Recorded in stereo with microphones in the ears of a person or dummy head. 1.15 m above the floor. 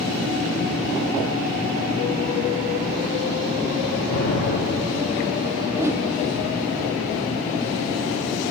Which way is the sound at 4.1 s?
80° left.